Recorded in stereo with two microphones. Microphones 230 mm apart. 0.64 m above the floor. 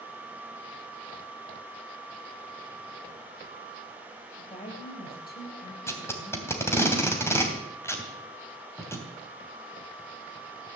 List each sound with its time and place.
4.4 s a woman speaking: 30° left (ahead or behind), 3.5 m; by 6.7 s 55° left (ahead or behind), 4.5 m
5.9 s tape being pulled: 10° left (ahead or behind), 2.5 m